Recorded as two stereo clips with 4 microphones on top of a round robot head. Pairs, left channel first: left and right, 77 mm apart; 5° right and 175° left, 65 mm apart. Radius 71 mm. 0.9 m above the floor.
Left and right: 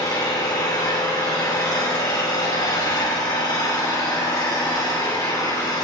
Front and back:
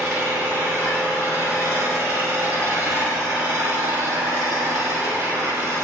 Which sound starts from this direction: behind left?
An engine running, at 0.0 s.